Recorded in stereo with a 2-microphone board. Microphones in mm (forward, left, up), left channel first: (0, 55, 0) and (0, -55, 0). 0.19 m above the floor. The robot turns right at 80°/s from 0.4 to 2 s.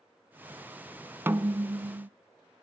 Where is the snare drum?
155° right, 0.6 m; by 2.1 s 95° right, 0.6 m.